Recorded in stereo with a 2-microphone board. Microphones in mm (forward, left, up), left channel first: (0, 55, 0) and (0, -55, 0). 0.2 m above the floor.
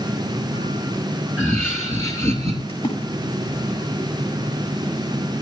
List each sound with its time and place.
1.4 s laughter: 15° left (ahead or behind), 3 m; by 2.6 s 30° left (ahead or behind), 3.5 m
2.7 s a splash: 55° left (ahead or behind), 8 m